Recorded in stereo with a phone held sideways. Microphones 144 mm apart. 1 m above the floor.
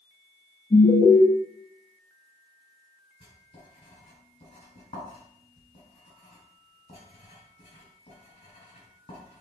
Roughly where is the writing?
Left.